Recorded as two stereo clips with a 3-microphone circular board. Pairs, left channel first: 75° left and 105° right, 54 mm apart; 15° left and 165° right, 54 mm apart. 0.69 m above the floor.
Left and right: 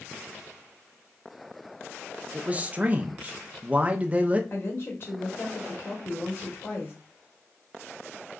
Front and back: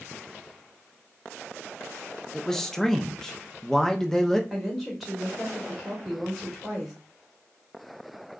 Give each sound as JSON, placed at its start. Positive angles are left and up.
{"t": 2.3, "sound": "a man speaking", "azimuth_deg": -60, "distance_m": 0.5}
{"t": 4.5, "sound": "a woman speaking", "azimuth_deg": 110, "distance_m": 1.9}